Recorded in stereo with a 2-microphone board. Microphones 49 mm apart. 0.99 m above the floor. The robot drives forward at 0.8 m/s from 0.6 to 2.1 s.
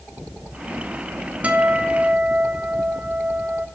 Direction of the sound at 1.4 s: 30° right (ahead or behind).